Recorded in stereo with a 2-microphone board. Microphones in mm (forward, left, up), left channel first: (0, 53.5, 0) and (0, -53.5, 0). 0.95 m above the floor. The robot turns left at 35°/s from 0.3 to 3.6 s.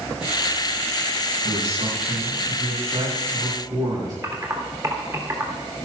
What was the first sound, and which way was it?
A man speaking, 70° right.